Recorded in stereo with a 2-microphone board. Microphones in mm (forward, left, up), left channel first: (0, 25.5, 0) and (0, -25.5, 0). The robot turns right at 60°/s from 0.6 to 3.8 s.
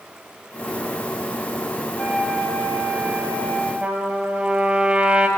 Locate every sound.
2.0 s a flute: straight ahead, 4 m; by 3.7 s 105° left, 4 m
3.8 s a trumpet: 25° right (ahead or behind), 2.5 m